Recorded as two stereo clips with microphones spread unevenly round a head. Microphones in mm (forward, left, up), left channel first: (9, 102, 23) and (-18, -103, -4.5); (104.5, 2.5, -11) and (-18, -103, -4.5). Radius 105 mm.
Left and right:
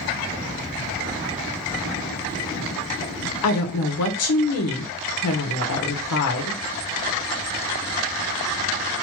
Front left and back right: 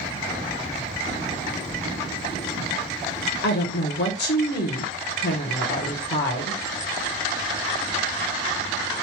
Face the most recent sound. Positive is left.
turn(degrees=70)